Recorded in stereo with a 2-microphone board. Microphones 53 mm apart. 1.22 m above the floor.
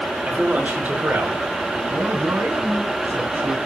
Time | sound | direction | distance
0.3 | a man speaking | 25° right (ahead or behind) | 4 m
1.9 | a man speaking | 50° right (ahead or behind) | 9 m